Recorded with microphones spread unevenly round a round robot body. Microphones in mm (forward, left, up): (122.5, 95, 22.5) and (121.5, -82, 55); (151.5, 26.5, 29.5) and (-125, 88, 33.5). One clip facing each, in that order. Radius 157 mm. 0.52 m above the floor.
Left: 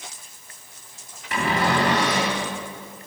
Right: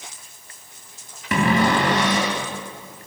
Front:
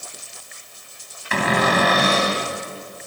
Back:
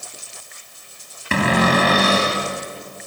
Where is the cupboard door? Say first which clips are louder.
Right 4 dB, back 3 dB; 130° right, 3.5 m.